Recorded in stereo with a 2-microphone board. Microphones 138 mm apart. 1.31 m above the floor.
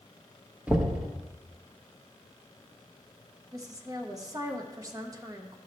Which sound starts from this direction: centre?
Knocking, at 0.7 s.